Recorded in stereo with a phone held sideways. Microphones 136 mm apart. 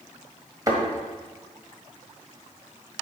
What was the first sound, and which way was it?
A thud, 25° right (ahead or behind).